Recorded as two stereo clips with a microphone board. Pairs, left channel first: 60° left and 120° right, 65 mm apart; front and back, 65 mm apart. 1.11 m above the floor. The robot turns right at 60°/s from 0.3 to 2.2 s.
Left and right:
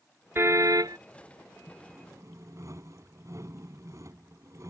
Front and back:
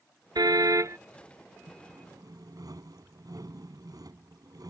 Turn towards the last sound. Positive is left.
turn(degrees=-160)